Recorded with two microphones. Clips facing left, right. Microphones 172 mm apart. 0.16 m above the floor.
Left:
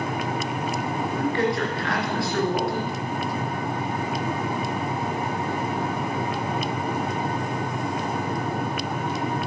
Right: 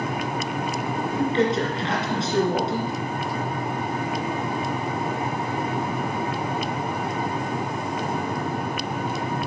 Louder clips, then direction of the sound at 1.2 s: Right 3 dB; 25° right (ahead or behind).